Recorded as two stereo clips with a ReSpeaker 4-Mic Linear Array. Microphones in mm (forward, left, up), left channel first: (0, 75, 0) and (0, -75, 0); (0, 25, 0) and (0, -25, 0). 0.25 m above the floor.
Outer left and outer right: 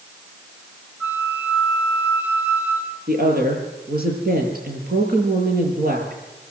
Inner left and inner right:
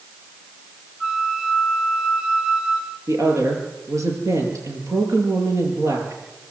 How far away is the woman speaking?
About 6.5 m.